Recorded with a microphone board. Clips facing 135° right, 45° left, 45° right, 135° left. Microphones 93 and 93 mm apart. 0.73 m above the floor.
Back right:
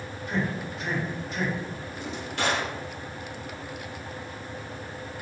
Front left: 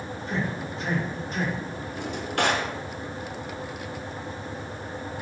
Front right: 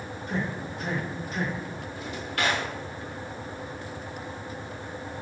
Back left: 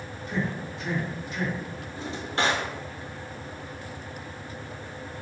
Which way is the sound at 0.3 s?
10° right.